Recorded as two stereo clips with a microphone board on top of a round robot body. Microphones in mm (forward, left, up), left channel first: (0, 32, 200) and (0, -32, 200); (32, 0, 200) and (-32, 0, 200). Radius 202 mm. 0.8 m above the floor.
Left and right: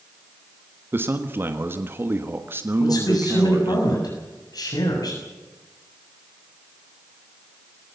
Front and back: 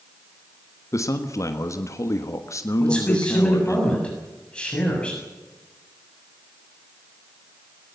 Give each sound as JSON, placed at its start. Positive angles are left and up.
{"t": 0.9, "sound": "a man speaking", "azimuth_deg": -35, "distance_m": 1.5}
{"t": 2.8, "sound": "a man speaking", "azimuth_deg": 75, "distance_m": 7.0}